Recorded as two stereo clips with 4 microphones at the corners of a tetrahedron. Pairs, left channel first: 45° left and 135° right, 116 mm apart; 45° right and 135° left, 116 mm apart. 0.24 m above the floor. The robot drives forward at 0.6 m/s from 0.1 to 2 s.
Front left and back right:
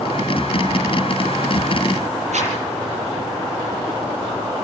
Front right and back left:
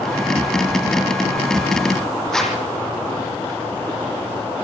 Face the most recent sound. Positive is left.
turn(degrees=-130)